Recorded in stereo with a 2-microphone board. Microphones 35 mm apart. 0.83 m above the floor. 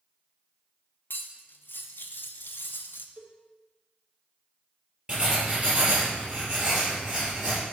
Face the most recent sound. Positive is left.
turn(degrees=-15)  # may be behind; listen again after turning